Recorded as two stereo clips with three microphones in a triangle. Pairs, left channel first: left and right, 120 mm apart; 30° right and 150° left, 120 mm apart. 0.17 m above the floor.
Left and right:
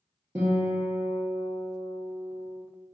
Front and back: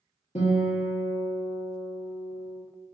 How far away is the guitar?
About 1.9 m.